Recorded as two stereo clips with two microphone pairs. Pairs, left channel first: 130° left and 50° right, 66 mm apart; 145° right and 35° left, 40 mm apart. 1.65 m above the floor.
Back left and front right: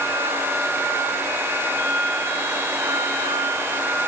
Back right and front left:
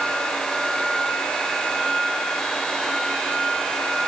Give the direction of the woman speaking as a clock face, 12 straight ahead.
No woman speaking in this recording.